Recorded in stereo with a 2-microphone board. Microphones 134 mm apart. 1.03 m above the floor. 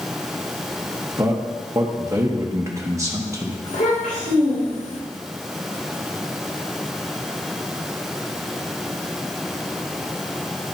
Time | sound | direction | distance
1.2 | a man speaking | 20° right (ahead or behind) | 1.4 m
3.6 | a child speaking | 85° left | 3.5 m